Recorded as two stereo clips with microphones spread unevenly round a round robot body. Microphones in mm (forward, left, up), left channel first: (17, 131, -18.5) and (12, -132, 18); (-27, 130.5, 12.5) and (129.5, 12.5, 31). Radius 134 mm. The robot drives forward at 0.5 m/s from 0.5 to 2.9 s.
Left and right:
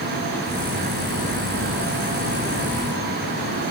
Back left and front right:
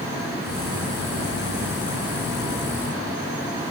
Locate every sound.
Only background noise.